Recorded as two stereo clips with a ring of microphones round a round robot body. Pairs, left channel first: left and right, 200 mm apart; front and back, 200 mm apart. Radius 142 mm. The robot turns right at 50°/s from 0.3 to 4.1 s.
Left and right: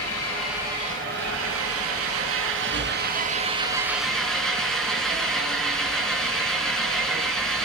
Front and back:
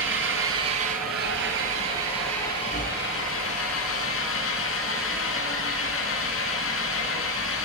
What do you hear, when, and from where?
0.0 s an engine running: 175° left, 4.5 m; by 7.7 s 5° left, 4.5 m